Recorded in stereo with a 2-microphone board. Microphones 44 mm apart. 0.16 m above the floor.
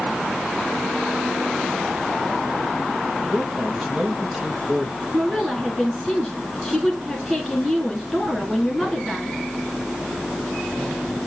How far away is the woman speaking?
About 1.9 m.